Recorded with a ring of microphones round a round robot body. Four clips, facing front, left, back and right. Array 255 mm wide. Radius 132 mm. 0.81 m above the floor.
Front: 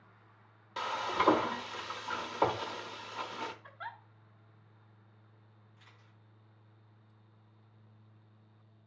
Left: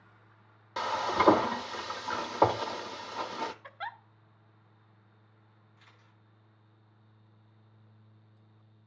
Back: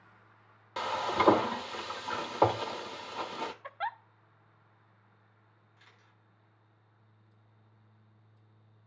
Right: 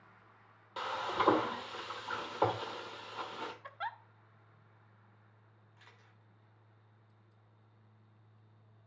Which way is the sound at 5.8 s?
105° right.